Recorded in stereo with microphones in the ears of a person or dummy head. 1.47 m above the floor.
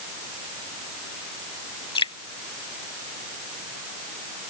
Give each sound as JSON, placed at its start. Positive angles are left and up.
{"t": 1.9, "sound": "dripping", "side_deg": 20}